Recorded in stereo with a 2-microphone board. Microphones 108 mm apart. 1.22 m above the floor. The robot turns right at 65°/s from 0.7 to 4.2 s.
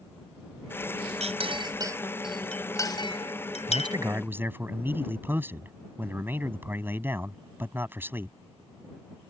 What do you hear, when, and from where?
1.2 s a clink: 75° right (ahead or behind); by 4.0 s 75° left (ahead or behind)
3.7 s a man speaking: 50° right; by 8.3 s 20° right